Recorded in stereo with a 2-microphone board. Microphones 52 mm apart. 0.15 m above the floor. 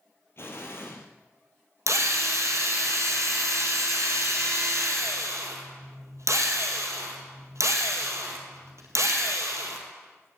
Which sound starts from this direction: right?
A drill, at 1.9 s.